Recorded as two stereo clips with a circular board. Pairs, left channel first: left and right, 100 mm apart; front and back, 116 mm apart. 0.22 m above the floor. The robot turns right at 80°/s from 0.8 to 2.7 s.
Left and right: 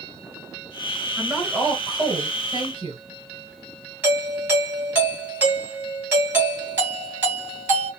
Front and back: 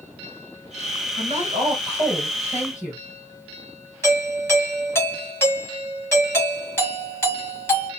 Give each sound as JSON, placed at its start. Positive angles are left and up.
{"t": 1.2, "sound": "a woman speaking", "azimuth_deg": 175, "distance_m": 2.0}
{"t": 4.0, "sound": "a doorbell", "azimuth_deg": -45, "distance_m": 2.0}